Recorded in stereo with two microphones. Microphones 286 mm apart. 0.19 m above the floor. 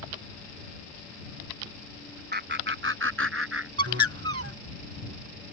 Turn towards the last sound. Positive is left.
turn(degrees=-55)  # may be behind; listen again after turning